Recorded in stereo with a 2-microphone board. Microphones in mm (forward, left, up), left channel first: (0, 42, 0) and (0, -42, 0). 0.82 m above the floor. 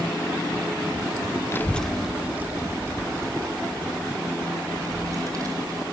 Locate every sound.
1.5 s a child speaking: 30° left (ahead or behind), 0.6 m; by 5.8 s 45° right (ahead or behind), 4 m